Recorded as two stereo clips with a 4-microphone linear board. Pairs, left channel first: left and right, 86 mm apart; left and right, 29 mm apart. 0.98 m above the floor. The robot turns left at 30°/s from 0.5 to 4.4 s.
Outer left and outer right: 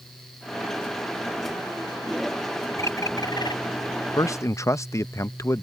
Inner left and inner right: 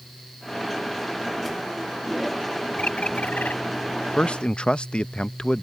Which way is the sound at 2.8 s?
35° left (ahead or behind).